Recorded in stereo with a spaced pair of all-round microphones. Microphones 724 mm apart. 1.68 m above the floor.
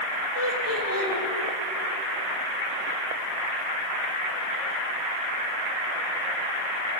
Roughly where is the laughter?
Centre.